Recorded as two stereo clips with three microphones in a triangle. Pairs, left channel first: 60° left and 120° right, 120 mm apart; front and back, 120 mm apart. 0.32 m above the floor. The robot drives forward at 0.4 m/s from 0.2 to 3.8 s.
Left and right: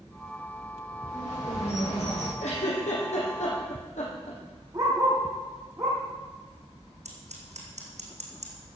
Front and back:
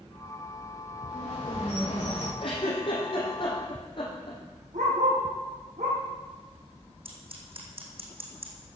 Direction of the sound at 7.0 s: 140° right.